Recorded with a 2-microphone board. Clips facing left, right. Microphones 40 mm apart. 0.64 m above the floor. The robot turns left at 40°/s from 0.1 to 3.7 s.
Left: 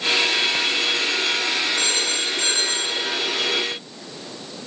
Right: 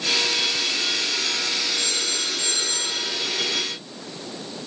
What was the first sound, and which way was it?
A phone ringing, 90° left.